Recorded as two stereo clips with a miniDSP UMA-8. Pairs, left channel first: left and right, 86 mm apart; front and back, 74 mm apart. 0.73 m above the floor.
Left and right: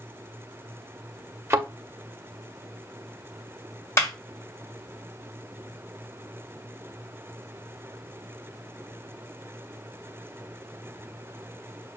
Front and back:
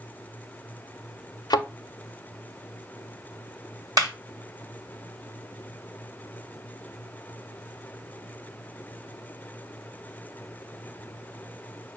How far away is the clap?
About 2 m.